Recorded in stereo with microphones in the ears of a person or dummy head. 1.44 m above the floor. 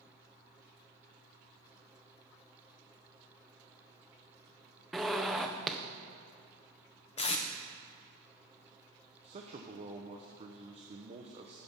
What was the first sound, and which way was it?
A zipper, 10° right (ahead or behind).